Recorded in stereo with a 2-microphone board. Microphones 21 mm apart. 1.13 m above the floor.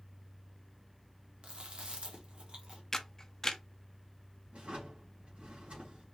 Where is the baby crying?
I don't hear a baby crying.